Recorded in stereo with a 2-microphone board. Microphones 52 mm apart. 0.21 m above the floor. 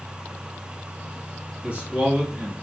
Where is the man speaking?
30° right (ahead or behind), 1.4 m.